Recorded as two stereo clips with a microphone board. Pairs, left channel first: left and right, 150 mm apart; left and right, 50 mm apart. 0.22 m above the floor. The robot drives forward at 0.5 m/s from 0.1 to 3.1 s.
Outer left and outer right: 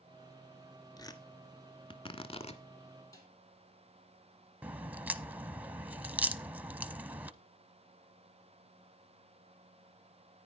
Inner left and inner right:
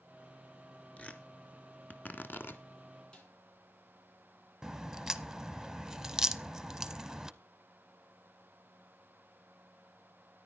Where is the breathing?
No breathing in this recording.